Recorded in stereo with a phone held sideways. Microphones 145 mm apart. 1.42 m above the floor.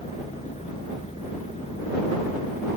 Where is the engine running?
50° left (ahead or behind).